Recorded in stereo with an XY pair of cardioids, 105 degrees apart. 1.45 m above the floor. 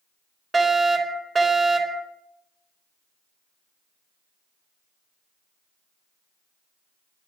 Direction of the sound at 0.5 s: 30° right.